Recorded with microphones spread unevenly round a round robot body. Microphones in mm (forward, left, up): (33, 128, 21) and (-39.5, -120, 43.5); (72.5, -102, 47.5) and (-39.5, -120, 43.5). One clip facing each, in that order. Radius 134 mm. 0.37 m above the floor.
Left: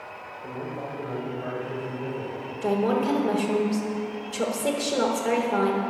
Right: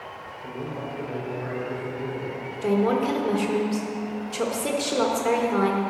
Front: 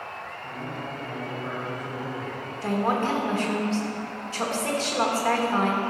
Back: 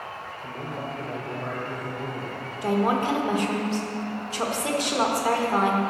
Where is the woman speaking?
170° left, 1.1 m.